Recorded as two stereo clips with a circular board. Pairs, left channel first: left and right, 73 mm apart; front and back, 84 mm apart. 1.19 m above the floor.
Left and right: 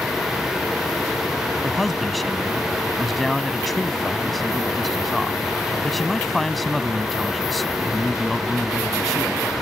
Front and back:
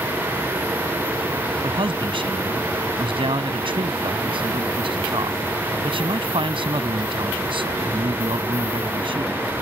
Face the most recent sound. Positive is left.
turn(degrees=175)